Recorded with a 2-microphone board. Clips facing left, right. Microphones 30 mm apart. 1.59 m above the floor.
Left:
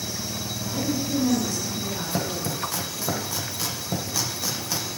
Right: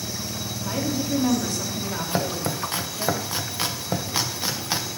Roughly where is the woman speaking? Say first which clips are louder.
Right 1 dB; right.